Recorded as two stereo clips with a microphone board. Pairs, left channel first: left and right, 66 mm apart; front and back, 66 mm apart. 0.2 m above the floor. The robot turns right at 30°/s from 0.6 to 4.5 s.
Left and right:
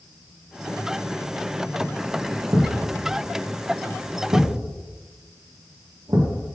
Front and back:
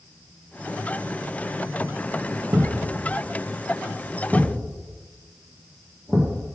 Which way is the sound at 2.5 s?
140° right.